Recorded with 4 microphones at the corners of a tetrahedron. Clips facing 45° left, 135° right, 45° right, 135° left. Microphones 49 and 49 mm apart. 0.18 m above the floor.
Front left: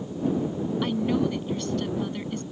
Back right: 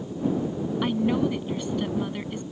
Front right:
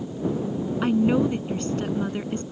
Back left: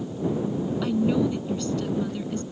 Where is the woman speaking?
70° right.